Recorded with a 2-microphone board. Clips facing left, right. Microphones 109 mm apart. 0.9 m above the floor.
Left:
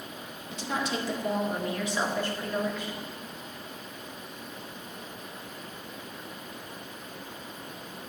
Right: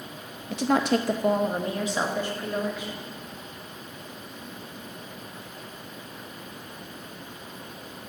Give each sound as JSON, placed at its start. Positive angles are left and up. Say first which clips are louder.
{"t": 0.5, "sound": "a woman speaking", "louder": "right 9 dB", "side_deg": -60, "distance_m": 0.6}